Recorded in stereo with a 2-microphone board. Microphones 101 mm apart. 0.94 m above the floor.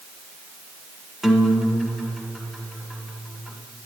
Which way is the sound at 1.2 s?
5° right (ahead or behind).